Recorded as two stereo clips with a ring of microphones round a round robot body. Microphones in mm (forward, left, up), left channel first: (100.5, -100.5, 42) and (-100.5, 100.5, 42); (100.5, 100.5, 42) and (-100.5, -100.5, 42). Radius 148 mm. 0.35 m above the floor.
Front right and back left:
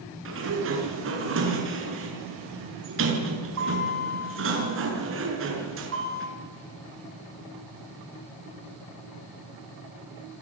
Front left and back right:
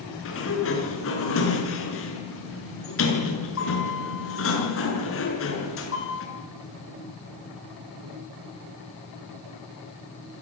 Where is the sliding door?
90° left, 6.5 m.